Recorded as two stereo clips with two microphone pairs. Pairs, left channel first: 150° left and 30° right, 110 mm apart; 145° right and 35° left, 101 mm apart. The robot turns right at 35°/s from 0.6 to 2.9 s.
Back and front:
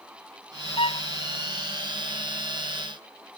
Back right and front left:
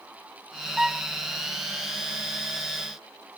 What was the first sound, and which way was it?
A violin, 120° left.